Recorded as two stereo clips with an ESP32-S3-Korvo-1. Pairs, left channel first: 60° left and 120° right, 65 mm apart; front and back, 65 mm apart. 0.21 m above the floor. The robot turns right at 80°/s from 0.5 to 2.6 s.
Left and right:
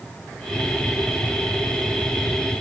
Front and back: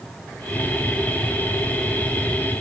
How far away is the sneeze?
No sneeze in this recording.